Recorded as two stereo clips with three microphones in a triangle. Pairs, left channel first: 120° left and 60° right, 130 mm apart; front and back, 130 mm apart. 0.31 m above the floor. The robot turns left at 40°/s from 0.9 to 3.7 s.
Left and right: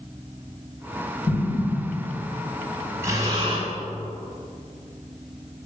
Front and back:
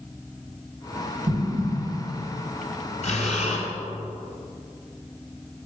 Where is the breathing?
10° left, 2 m; by 3.7 s 20° right, 2 m.